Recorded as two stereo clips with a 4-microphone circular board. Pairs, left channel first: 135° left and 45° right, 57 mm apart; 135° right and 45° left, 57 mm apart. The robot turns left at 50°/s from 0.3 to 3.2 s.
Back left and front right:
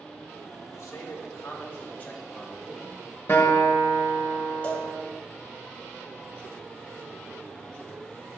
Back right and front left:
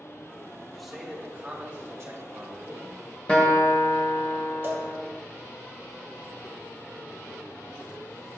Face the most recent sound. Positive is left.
turn(degrees=85)